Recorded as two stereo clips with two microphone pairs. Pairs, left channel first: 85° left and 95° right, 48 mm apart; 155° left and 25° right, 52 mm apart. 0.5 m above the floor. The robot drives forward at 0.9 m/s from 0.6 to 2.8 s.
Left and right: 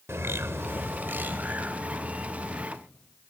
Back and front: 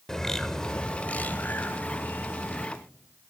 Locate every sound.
0.1 s a bird: 125° right, 0.9 m; by 2.7 s 165° right, 2.5 m